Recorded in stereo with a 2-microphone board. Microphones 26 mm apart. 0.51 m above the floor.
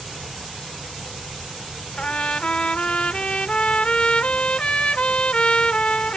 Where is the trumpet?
50° left (ahead or behind).